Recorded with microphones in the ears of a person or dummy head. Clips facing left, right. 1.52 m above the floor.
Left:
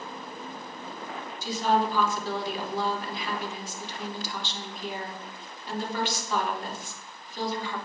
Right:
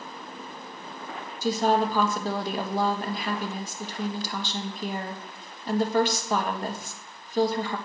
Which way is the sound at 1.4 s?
40° right (ahead or behind).